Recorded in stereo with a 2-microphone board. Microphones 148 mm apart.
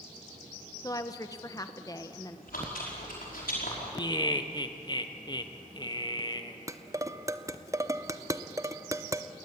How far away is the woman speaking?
About 1.0 m.